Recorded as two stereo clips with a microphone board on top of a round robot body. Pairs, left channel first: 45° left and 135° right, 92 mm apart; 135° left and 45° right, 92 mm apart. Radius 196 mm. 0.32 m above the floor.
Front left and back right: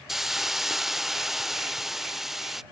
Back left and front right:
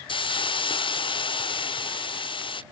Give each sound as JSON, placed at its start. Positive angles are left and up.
{"t": 0.1, "sound": "a hiss", "azimuth_deg": 140}